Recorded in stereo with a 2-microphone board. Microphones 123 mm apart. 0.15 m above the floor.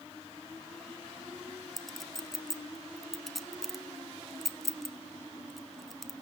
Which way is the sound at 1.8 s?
Centre (ahead or behind).